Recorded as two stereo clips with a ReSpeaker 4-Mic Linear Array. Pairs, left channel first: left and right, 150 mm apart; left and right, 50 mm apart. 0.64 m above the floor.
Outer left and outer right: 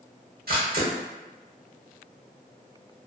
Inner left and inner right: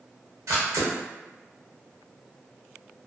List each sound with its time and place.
0.5 s a camera shutter: 85° right, 1.0 m